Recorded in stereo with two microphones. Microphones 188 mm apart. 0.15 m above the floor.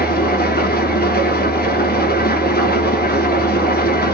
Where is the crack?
I don't hear a crack.